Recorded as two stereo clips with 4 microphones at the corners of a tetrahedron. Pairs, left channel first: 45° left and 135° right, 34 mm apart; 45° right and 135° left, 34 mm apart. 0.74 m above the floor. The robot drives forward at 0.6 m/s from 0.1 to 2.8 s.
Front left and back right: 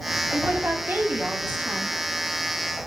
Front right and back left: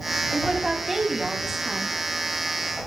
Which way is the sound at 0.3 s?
145° right.